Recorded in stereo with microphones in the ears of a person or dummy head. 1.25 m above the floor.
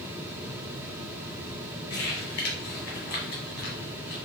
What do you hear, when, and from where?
1.9 s crumpling: 50° left (ahead or behind), 1.2 m